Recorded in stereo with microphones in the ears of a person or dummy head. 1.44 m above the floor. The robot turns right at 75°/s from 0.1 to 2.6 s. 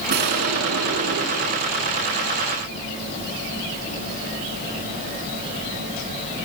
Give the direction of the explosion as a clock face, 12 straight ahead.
4 o'clock.